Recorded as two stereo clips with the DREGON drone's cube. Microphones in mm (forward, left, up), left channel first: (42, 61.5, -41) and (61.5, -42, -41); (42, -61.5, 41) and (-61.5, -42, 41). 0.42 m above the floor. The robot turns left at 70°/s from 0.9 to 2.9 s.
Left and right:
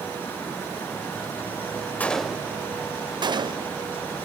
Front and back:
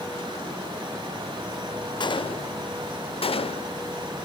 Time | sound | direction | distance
2.0 | a gunshot | 25° left | 0.5 m